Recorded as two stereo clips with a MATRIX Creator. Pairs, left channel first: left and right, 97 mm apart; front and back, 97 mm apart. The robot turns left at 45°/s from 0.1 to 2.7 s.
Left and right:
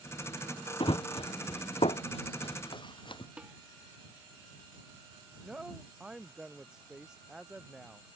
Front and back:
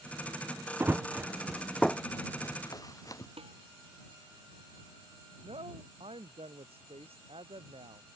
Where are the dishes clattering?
165° right.